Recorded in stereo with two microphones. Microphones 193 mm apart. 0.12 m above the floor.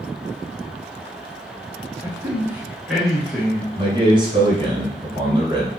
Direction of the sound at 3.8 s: 25° right (ahead or behind).